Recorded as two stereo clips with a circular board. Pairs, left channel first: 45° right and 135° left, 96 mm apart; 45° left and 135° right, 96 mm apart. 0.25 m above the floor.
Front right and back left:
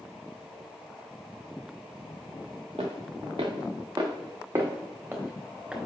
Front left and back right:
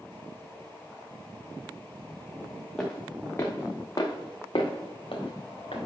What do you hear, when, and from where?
2.8 s footsteps: 130° left, 1.3 m; by 5.8 s 55° left, 2 m